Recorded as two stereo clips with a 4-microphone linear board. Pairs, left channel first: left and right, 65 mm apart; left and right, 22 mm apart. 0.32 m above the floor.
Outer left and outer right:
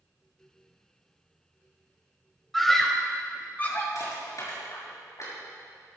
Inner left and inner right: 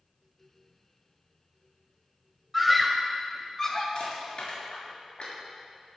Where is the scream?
Centre (ahead or behind), 1.7 m; by 3.9 s 30° left (ahead or behind), 2.5 m.